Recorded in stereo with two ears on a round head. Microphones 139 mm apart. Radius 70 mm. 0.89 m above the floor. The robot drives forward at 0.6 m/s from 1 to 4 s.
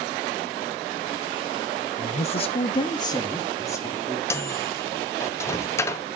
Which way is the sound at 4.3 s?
20° left (ahead or behind).